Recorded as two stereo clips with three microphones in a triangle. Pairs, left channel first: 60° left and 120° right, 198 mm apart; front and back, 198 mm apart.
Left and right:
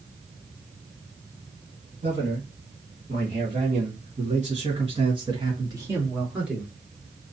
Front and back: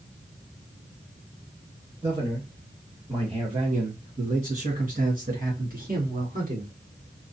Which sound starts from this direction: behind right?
A man speaking, at 2.0 s.